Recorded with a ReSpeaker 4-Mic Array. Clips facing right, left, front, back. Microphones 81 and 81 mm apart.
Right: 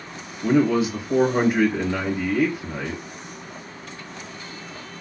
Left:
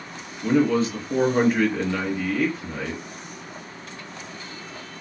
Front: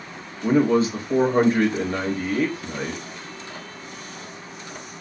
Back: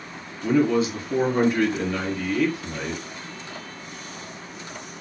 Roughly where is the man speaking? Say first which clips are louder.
Right 1 dB, front 2 dB; ahead.